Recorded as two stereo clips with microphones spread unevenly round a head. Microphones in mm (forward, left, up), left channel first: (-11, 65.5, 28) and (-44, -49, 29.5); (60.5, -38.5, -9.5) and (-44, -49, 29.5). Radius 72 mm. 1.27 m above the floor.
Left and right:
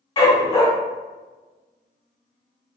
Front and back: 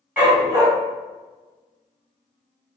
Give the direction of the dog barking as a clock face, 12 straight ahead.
8 o'clock.